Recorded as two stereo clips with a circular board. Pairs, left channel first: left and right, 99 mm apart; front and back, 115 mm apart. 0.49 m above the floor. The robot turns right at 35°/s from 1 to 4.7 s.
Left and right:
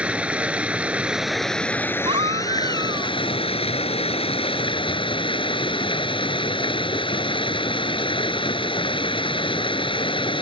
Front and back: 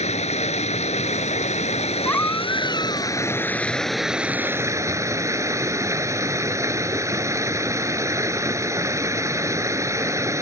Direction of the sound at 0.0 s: 15° right.